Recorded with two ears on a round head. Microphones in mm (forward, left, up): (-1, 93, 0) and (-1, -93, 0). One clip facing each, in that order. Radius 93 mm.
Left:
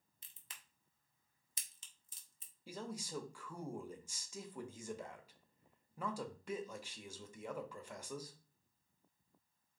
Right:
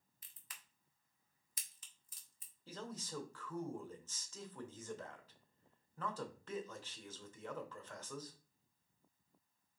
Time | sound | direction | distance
0.2 | a crack | 25° left (ahead or behind) | 0.8 m
2.7 | a man speaking | 10° left (ahead or behind) | 0.7 m